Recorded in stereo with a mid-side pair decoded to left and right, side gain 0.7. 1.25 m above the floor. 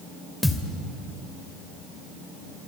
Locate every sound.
0.4 s a thud: 5° left, 2.5 m